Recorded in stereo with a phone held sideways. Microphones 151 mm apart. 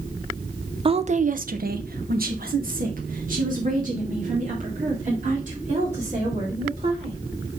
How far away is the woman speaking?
About 0.7 m.